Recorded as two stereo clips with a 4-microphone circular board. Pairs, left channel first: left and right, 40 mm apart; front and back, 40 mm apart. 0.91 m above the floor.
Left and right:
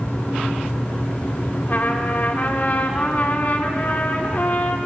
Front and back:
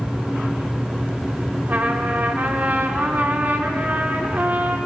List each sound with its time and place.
1.7 s a trumpet: 135° left, 1.9 m